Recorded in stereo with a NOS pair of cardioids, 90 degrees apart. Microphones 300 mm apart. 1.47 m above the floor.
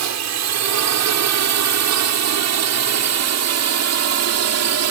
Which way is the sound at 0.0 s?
65° right.